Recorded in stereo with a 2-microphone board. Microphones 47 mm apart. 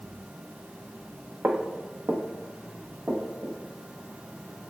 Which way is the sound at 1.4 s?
70° right (ahead or behind).